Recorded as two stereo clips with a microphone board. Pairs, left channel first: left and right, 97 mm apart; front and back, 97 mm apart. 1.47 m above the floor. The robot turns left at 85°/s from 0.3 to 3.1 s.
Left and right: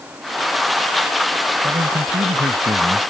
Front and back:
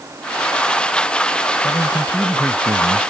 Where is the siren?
No siren in this recording.